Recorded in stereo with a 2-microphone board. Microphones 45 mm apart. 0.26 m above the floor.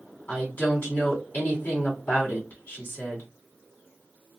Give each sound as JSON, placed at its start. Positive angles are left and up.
{"t": 0.3, "sound": "a woman speaking", "side_deg": 45, "distance_m": 2.0}